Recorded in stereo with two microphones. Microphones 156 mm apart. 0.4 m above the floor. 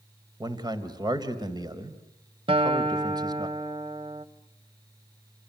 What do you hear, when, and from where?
0.4 s a man speaking: 25° right (ahead or behind), 2 m
2.5 s a guitar: 35° right (ahead or behind), 1.0 m